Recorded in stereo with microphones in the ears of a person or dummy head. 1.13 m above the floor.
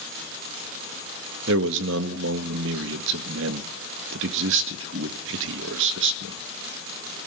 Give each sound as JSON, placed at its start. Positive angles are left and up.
{"t": 1.5, "sound": "a man speaking", "side_deg": -70, "distance_m": 1.8}